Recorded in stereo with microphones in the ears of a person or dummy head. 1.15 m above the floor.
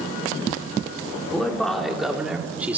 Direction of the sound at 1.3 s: 5° left (ahead or behind).